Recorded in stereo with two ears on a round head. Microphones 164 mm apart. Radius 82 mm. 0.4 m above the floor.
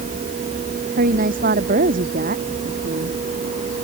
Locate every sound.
1.0 s a woman speaking: 50° right (ahead or behind)